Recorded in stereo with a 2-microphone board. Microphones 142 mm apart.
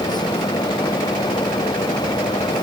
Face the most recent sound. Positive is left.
No sound to turn to.